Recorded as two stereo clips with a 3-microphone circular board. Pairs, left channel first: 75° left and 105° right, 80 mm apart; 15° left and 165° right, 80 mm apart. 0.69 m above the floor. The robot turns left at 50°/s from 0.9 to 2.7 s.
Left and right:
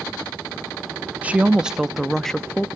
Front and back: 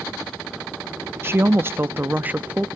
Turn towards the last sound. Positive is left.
turn(degrees=130)